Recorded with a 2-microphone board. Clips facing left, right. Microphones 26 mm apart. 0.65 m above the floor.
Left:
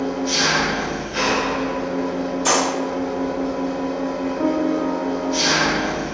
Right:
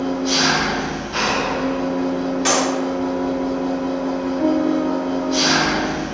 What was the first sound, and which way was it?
An engine running, 85° right.